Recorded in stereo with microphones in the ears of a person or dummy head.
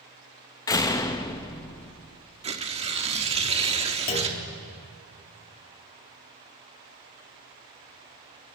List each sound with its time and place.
0.7 s a door slam: 15° left (ahead or behind), 0.6 m
2.4 s tearing paper: 25° right (ahead or behind), 0.7 m
4.1 s a clunk: 45° left (ahead or behind), 2 m